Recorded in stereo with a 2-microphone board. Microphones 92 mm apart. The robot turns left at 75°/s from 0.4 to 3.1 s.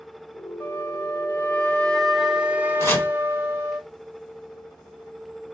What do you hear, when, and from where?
0.6 s a flute: 25° left (ahead or behind), 0.8 m; by 3.8 s 25° right (ahead or behind), 0.8 m
2.8 s chopping: 30° left (ahead or behind), 0.7 m; by 3.1 s 20° left (ahead or behind), 0.7 m